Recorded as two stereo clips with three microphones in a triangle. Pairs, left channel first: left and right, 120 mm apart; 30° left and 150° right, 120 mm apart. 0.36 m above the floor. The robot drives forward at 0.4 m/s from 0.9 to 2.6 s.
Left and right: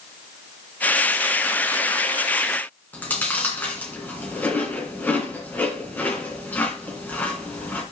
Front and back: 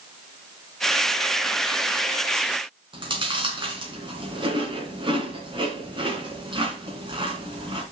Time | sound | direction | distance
2.9 | chewing | 165° left | 2.5 m